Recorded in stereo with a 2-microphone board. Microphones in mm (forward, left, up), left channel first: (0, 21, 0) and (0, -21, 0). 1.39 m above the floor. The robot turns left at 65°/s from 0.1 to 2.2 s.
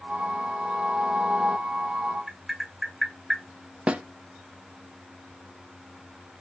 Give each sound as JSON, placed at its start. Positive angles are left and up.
{"t": 2.3, "sound": "tapping", "side_deg": 0, "distance_m": 1.7}
{"t": 3.9, "sound": "a snare drum", "side_deg": -30, "distance_m": 0.5}